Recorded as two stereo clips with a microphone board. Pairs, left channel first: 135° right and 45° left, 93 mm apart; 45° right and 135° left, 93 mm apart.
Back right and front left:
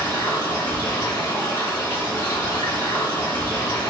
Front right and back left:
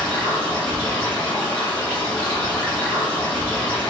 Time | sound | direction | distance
0.0 | running water | 110° right | 1.6 m